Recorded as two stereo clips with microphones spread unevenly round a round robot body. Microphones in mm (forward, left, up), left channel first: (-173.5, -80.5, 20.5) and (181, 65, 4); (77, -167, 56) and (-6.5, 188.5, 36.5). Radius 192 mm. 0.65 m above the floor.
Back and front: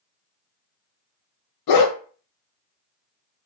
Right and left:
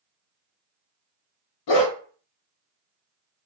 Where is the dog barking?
115° right, 0.6 m.